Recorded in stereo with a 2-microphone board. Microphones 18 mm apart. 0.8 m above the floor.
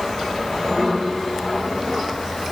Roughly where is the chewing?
No chewing in this recording.